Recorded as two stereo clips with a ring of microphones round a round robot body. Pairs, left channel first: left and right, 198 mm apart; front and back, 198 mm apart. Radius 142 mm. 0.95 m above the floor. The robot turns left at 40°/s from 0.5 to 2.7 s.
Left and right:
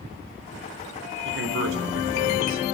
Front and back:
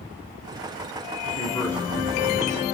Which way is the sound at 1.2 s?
65° right.